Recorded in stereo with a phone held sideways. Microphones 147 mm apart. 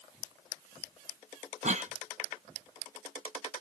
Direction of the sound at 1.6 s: 55° right (ahead or behind).